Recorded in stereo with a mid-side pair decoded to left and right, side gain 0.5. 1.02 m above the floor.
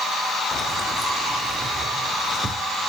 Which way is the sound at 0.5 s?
45° left.